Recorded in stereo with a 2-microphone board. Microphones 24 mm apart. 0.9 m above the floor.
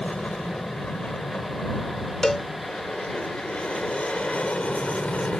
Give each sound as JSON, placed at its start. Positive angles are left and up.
{"t": 0.0, "sound": "an aircraft", "side_deg": 70}
{"t": 2.2, "sound": "a cowbell", "side_deg": 25}